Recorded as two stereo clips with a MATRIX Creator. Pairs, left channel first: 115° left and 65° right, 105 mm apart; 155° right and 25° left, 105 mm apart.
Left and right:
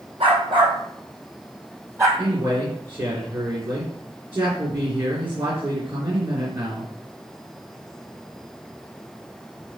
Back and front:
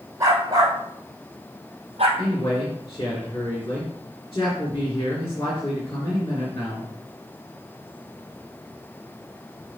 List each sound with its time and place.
0.2 s a dog barking: 40° right, 3 m; by 2.1 s 5° right, 2.5 m
2.2 s a man speaking: 105° right, 3.5 m